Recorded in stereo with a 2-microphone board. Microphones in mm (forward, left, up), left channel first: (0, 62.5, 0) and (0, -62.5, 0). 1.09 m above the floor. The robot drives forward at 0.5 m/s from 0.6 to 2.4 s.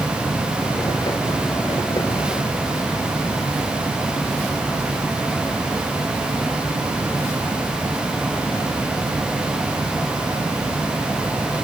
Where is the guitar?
I don't hear a guitar.